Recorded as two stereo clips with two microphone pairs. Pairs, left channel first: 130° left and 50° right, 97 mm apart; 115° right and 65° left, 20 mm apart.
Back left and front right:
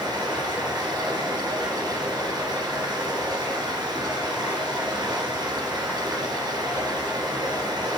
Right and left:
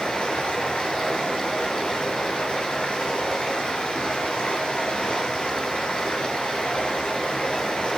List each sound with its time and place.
0.0 s running water: 95° right, 4.5 m